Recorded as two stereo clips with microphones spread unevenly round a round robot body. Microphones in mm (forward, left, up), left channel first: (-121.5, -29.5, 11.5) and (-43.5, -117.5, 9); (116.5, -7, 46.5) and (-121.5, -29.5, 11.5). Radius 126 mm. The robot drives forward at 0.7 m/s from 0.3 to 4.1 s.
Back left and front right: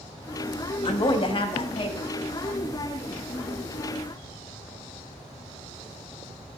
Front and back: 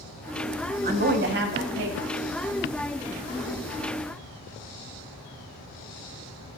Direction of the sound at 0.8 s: 160° left.